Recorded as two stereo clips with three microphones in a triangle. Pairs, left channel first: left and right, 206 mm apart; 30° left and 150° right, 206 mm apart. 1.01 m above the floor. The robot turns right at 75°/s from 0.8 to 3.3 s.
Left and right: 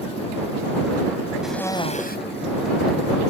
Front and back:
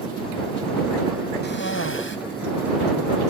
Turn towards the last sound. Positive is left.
turn(degrees=135)